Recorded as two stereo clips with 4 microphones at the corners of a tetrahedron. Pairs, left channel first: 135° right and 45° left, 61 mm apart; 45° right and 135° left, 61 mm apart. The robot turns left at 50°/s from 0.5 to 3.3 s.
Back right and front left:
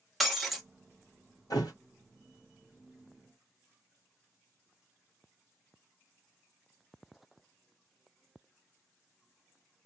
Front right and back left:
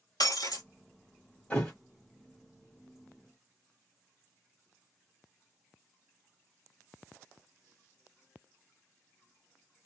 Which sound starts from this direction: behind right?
A thud, at 1.5 s.